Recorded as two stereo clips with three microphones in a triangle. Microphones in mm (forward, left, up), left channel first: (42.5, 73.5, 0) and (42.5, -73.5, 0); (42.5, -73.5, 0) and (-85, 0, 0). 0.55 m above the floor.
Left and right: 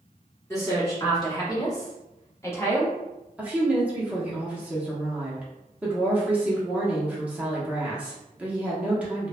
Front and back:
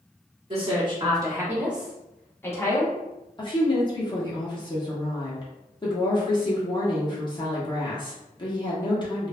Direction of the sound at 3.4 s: 20° right.